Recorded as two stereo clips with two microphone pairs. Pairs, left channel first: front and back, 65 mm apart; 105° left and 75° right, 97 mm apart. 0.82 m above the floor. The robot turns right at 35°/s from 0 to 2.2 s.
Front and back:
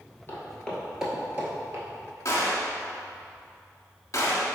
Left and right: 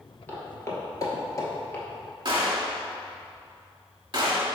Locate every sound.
0.3 s footsteps: 40° left, 1.0 m; by 1.9 s 170° left, 1.1 m
2.2 s a gunshot: 40° right, 1.0 m